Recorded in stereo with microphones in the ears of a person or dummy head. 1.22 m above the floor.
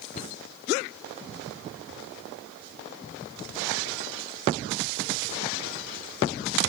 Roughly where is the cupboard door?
Left.